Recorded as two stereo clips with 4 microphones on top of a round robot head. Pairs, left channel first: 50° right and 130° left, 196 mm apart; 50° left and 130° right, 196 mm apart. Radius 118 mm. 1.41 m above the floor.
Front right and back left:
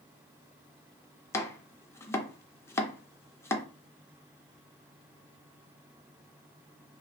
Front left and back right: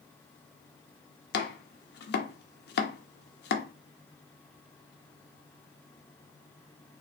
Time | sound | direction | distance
1.3 | chopping | 25° left | 0.6 m